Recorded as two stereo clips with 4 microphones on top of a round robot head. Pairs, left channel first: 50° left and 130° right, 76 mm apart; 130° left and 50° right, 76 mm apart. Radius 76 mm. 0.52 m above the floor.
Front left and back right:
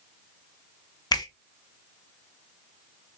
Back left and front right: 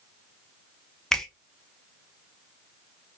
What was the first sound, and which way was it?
A finger snap, 45° left.